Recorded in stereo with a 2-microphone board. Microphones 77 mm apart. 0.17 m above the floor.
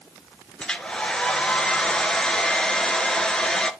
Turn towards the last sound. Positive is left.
turn(degrees=10)  # may be behind; listen again after turning